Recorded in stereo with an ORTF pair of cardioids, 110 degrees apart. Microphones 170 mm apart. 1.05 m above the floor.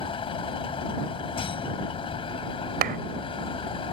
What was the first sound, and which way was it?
A vehicle, 35° left.